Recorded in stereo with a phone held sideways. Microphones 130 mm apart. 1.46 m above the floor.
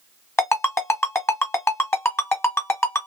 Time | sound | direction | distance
0.4 | a ringtone | 20° left (ahead or behind) | 1.5 m